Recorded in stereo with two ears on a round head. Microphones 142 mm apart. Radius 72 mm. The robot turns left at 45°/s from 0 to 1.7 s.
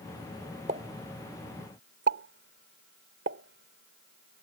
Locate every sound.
0.7 s a pop: 40° right (ahead or behind); by 4.5 s 85° right